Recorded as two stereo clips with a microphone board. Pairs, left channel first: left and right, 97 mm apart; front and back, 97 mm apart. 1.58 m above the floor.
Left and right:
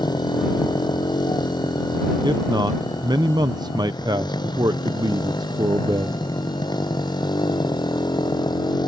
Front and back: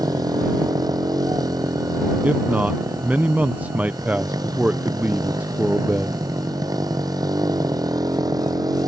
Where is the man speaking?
110° right.